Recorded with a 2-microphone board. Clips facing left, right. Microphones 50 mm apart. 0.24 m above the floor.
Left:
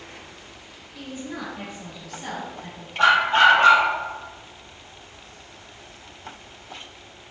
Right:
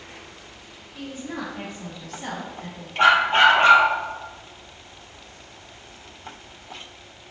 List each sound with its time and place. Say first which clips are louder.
0.9 s a woman speaking: right 1 dB; 40° right (ahead or behind), 1.3 m; by 2.9 s 30° right (ahead or behind), 2 m
3.0 s a dog barking: even; 35° right (ahead or behind), 1.4 m